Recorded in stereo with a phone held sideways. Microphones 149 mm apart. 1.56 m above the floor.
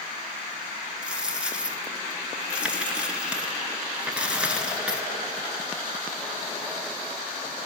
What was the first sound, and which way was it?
A dropped coin, 5° right (ahead or behind).